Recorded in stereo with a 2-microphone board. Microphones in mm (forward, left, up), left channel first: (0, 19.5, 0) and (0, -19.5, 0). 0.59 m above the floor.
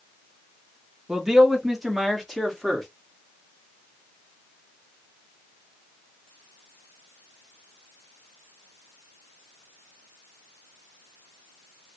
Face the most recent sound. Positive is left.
turn(degrees=10)  # may be behind; listen again after turning